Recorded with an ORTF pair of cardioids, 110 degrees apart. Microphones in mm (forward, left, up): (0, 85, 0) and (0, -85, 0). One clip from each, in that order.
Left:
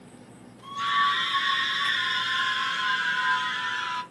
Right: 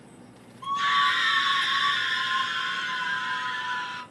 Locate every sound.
0.6 s a scream: 55° right, 1.3 m; by 4.0 s 40° left, 1.4 m